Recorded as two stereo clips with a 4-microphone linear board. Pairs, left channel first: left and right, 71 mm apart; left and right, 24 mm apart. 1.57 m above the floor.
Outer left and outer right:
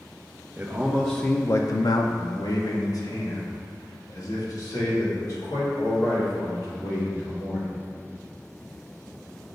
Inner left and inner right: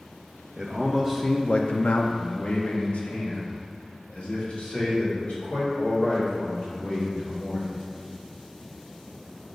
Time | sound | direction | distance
0.6 | a man speaking | 25° right (ahead or behind) | 0.9 m